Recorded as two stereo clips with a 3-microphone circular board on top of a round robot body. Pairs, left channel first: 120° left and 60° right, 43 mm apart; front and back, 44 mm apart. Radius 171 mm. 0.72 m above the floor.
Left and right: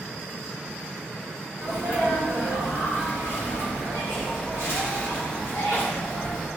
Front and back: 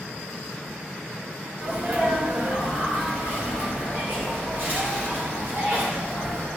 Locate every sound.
1.6 s a sneeze: 135° left, 2.5 m